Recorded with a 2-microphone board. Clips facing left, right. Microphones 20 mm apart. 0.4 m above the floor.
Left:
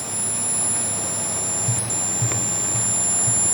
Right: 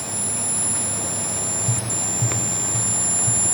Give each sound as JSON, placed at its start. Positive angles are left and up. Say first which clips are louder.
{"t": 1.7, "sound": "tapping", "louder": "even", "side_deg": 10, "distance_m": 6.5}